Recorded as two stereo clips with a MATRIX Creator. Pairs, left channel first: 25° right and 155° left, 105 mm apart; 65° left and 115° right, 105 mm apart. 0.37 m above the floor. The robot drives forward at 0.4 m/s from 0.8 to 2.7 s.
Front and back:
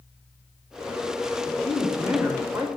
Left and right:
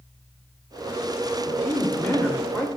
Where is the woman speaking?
60° left, 1.1 m; by 2.7 s 125° left, 1.1 m.